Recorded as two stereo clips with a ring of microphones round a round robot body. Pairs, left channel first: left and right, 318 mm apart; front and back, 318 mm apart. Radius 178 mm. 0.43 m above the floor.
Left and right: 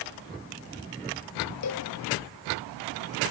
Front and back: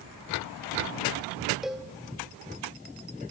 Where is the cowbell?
90° left, 1.6 m.